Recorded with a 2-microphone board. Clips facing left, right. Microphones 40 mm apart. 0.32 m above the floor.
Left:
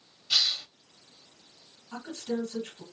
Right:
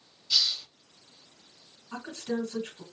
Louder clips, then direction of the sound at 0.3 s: Left 1 dB; 45° left (ahead or behind).